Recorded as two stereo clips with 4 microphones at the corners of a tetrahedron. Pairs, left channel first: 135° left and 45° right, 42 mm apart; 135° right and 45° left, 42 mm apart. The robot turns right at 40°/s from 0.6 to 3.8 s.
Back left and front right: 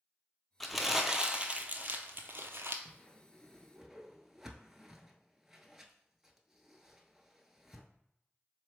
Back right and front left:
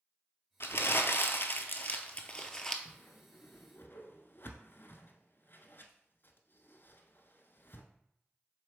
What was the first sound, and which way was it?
Crumpling, 140° right.